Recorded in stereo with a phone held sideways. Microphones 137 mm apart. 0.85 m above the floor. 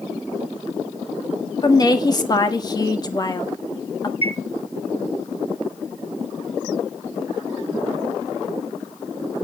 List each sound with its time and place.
1.6 s a woman speaking: 30° left (ahead or behind), 1.5 m
4.2 s a chime: 45° left (ahead or behind), 2 m